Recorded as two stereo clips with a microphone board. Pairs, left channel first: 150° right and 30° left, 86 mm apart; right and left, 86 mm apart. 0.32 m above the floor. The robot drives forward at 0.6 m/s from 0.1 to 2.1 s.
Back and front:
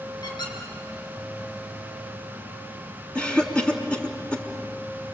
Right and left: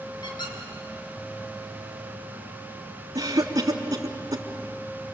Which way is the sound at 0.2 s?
115° right.